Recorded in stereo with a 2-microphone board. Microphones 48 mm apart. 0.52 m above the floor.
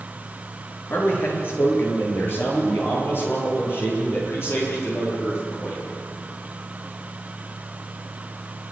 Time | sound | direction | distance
0.9 | a man speaking | 50° left (ahead or behind) | 9 m